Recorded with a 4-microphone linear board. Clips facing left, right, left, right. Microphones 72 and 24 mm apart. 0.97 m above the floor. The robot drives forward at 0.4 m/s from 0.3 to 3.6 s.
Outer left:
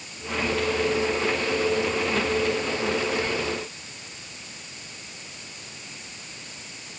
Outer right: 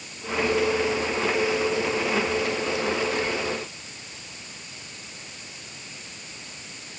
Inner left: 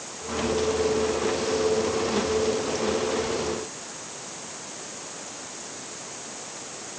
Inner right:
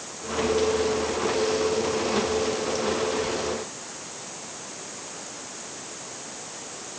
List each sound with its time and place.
Only background noise.